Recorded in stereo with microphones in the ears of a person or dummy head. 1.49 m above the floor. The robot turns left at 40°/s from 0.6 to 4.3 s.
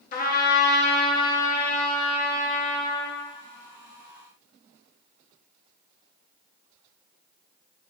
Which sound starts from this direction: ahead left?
A trumpet, at 0.1 s.